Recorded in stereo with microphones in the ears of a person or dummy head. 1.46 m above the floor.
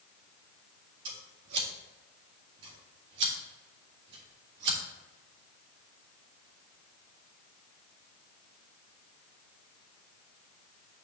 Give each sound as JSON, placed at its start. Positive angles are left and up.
{"t": 1.1, "sound": "scissors", "side_deg": -70, "distance_m": 2.0}